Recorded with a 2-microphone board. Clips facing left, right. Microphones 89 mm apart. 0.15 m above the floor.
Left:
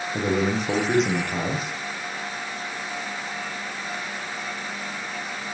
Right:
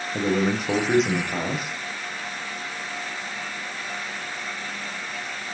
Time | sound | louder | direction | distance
0.1 | a man speaking | right 1 dB | 5° right (ahead or behind) | 7.5 m